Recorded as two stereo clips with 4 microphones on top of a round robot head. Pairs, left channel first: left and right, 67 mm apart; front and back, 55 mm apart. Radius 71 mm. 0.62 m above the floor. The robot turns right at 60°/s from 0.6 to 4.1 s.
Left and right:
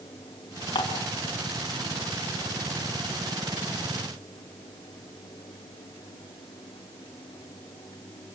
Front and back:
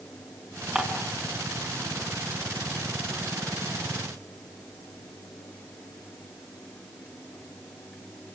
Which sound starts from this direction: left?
Dishes clattering, at 0.8 s.